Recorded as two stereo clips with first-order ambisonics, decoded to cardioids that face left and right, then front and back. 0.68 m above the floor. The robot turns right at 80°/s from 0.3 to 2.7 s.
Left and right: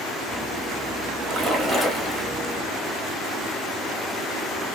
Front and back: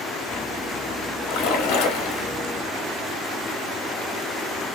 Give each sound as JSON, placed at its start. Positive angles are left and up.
{"t": 1.3, "sound": "a splash", "azimuth_deg": -35, "distance_m": 0.7}